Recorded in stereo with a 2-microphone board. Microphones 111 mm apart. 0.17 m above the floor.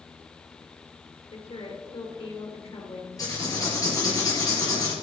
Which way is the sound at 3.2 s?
35° left (ahead or behind).